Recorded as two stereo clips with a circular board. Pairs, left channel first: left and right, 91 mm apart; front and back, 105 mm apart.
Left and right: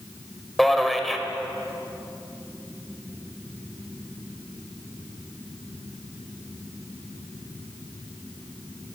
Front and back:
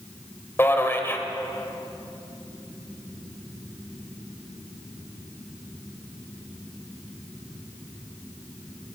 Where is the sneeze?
No sneeze in this recording.